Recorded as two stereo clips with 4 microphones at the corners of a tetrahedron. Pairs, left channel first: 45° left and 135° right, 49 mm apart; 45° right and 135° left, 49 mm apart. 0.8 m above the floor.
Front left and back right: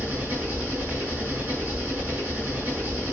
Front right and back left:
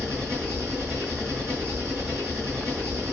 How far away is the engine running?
About 7 m.